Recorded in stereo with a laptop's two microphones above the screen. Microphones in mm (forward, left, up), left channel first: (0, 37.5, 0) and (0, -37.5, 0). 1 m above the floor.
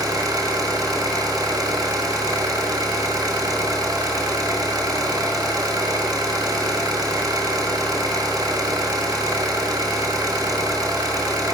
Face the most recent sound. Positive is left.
turn(degrees=-55)  # may be behind; listen again after turning